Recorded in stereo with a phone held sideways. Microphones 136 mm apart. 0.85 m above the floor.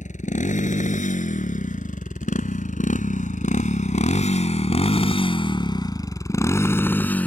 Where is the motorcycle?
70° left (ahead or behind); by 7.3 s 10° left (ahead or behind).